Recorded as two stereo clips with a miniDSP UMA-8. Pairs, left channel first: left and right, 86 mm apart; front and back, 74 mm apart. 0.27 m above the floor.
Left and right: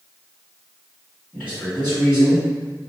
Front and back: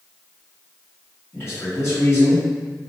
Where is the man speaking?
30° left, 1.9 m.